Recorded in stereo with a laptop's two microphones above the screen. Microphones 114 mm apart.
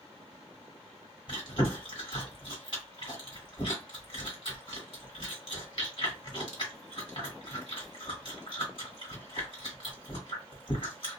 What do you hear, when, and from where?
1.3 s chewing: 50° left (ahead or behind), 1.6 m